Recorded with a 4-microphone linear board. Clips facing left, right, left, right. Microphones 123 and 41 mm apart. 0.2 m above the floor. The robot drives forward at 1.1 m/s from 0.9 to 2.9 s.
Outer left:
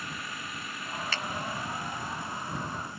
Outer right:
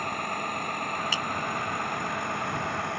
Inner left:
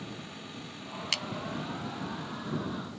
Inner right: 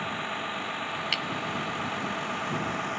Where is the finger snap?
15° right (ahead or behind); by 1.2 s 10° right (ahead or behind).